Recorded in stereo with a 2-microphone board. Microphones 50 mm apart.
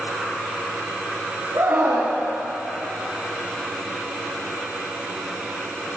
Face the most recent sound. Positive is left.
turn(degrees=-75)  # may be behind; listen again after turning